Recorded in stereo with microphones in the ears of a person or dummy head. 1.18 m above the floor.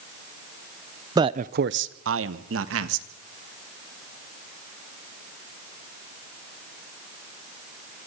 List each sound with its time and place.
1.1 s a man speaking: 15° right (ahead or behind), 0.6 m; by 3.1 s 75° right (ahead or behind), 2 m